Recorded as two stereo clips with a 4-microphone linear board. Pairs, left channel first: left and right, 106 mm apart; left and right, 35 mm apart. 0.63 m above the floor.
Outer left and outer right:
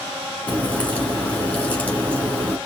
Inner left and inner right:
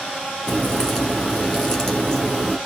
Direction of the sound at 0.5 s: 15° left (ahead or behind).